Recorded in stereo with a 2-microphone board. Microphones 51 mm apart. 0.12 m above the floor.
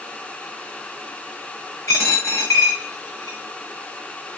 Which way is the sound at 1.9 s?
80° left.